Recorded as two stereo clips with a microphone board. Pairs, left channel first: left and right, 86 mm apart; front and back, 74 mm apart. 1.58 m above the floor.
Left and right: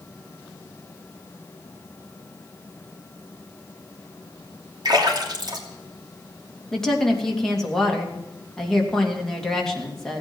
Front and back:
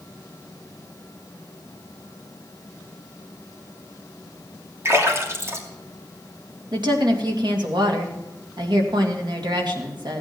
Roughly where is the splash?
Behind right.